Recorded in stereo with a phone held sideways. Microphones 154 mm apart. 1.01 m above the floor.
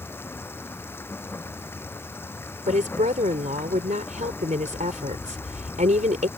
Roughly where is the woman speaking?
Right.